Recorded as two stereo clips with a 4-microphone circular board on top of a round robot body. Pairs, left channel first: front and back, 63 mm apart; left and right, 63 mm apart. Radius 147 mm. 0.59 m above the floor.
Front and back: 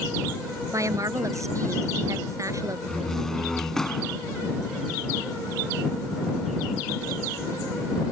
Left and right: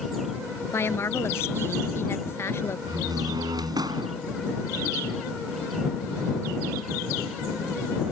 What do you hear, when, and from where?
0.7 s a woman speaking: 140° left
2.9 s a door slam: 85° right